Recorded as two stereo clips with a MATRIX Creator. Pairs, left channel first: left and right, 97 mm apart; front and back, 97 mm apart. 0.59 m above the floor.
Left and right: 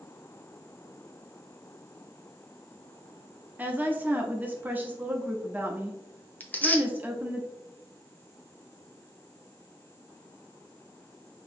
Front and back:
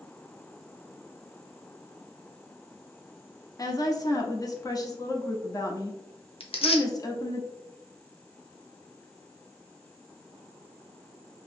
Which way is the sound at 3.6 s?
25° right.